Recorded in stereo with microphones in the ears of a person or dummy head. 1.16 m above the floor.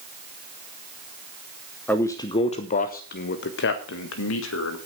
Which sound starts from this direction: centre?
A man speaking, at 1.9 s.